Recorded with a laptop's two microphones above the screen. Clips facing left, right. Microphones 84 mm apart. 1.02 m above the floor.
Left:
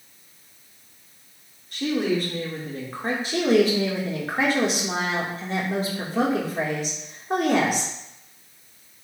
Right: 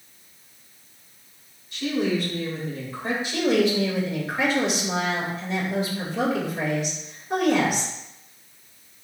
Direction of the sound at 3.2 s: 40° left (ahead or behind).